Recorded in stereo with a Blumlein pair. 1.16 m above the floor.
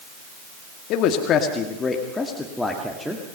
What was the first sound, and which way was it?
A man speaking, 40° left.